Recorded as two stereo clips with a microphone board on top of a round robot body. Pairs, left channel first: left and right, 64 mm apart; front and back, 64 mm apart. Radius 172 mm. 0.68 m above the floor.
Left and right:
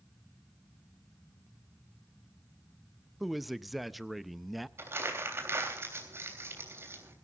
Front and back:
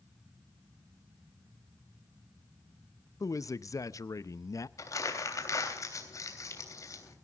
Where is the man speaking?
Straight ahead, 0.8 m.